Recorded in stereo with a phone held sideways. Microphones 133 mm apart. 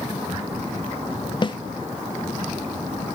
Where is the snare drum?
35° left (ahead or behind), 0.6 m.